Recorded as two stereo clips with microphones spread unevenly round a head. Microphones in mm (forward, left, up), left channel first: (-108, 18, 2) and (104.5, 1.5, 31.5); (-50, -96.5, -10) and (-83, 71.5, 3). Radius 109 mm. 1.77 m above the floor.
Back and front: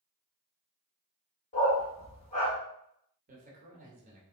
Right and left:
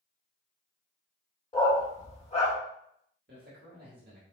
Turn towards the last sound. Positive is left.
turn(degrees=50)